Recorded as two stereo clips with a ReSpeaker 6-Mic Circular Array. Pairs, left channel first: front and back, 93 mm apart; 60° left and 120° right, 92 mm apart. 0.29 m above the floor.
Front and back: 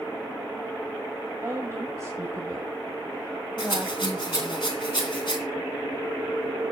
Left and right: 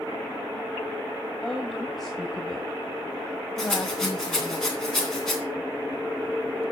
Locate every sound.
1.4 s a woman speaking: 145° left, 1.8 m
3.6 s a rattle: 25° right, 3 m